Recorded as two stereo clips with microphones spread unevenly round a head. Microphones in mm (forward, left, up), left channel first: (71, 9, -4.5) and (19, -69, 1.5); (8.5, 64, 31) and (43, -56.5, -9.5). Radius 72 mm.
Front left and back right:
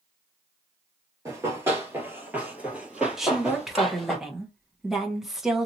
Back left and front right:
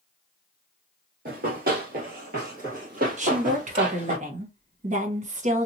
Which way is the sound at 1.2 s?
85° right.